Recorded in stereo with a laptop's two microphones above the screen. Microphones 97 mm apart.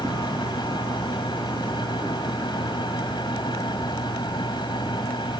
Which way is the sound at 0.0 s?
50° left (ahead or behind).